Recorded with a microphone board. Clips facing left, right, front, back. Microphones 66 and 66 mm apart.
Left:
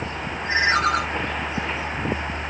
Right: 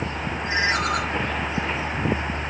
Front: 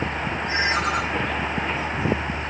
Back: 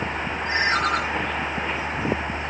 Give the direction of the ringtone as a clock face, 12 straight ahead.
7 o'clock.